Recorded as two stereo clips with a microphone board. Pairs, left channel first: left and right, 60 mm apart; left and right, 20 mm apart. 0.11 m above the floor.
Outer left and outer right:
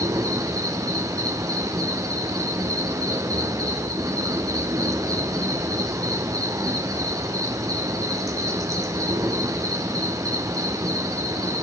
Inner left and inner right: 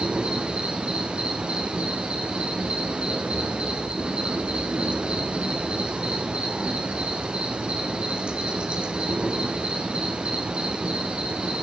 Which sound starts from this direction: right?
An insect, at 0.0 s.